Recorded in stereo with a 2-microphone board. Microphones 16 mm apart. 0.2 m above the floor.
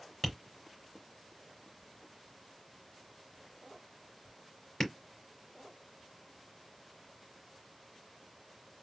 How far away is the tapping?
About 3 m.